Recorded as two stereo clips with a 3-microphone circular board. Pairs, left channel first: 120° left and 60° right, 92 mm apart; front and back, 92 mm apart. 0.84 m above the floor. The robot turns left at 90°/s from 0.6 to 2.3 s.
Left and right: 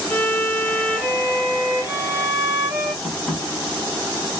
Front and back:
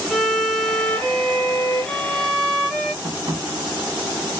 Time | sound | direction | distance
0.1 | a violin | 85° left | 1.0 m
3.0 | tapping | 150° right | 1.3 m